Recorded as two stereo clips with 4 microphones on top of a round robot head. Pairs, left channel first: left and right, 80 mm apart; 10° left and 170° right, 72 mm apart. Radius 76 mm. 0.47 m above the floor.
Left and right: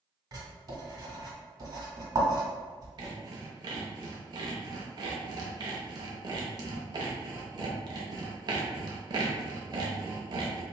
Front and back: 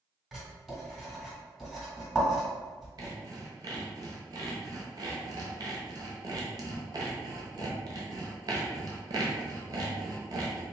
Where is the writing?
85° right, 1.8 m.